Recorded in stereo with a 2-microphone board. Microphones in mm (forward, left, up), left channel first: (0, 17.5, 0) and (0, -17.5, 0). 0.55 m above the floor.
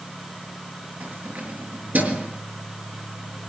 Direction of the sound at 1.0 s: 60° right (ahead or behind).